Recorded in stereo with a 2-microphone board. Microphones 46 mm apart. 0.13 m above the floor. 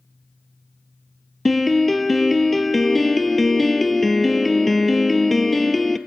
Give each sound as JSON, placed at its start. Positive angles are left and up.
{"t": 1.4, "sound": "a piano", "side_deg": 0, "distance_m": 1.1}